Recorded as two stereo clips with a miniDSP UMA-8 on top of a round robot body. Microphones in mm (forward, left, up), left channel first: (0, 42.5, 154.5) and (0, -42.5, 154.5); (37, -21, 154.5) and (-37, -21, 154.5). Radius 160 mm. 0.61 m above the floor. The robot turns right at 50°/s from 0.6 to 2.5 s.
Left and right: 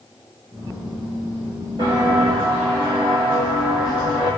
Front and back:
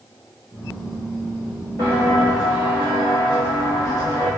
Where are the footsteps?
50° right, 0.7 m; by 4.3 s 50° left, 1.6 m.